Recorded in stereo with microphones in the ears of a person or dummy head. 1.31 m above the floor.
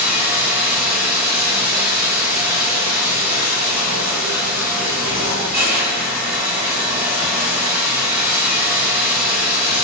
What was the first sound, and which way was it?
Running water, 10° right (ahead or behind).